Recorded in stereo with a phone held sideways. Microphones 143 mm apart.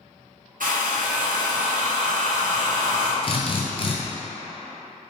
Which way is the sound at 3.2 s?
40° left (ahead or behind).